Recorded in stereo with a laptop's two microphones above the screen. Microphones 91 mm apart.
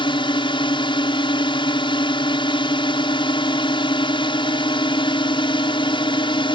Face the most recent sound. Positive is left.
turn(degrees=70)  # may be behind; listen again after turning